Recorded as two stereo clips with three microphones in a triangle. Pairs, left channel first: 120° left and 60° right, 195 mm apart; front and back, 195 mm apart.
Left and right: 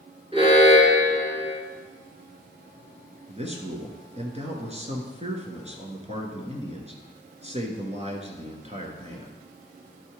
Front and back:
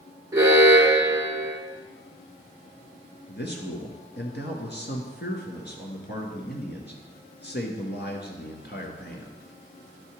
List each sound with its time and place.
0.3 s an alarm: 110° right, 1.9 m
3.3 s a man speaking: 10° right, 1.9 m